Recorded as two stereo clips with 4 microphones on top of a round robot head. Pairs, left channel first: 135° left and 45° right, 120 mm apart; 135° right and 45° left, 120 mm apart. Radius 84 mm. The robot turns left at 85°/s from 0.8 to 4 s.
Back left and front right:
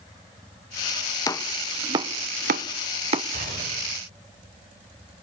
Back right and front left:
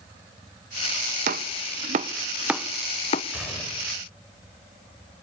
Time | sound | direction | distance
1.3 | chopping | 70° left | 0.8 m
3.3 | a gunshot | 30° right | 7 m